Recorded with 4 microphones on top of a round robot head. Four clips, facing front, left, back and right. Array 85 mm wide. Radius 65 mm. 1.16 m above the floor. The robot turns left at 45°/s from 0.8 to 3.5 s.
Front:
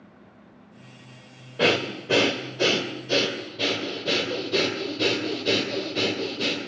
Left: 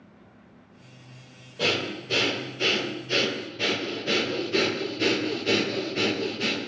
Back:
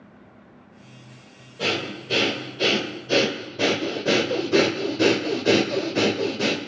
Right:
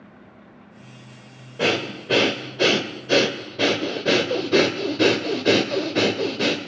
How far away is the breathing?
About 1.2 m.